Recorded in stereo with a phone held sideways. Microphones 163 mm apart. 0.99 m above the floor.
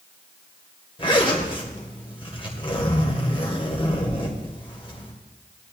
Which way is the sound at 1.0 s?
35° left (ahead or behind).